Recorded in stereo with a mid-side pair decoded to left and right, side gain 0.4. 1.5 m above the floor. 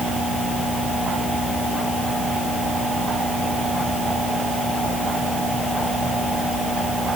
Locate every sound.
Only background noise.